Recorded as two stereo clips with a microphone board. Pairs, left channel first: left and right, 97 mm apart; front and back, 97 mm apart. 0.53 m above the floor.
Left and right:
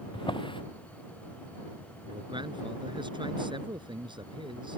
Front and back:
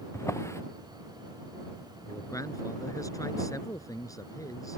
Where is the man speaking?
55° right.